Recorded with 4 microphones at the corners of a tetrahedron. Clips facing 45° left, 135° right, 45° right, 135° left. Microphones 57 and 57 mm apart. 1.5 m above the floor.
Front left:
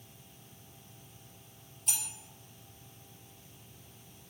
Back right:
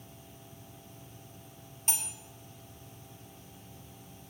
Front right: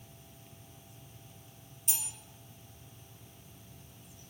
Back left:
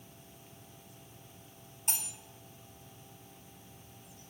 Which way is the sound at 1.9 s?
170° left.